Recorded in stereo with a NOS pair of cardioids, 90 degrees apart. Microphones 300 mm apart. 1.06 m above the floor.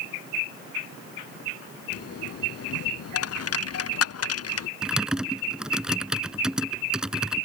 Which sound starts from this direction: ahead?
Typing on a keyboard, at 4.8 s.